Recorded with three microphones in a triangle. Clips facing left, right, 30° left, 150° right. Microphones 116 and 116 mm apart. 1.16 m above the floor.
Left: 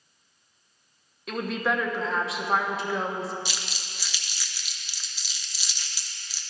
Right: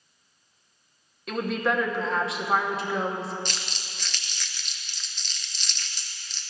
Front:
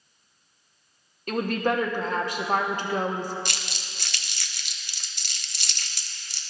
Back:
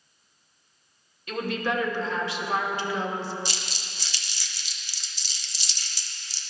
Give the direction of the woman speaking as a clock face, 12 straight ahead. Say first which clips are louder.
Right 1 dB, front 3 dB; 12 o'clock.